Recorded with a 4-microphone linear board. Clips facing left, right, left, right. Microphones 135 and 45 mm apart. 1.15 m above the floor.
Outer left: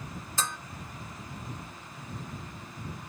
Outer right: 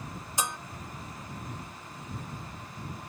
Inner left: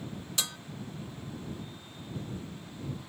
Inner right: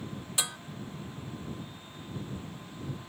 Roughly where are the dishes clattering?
Centre.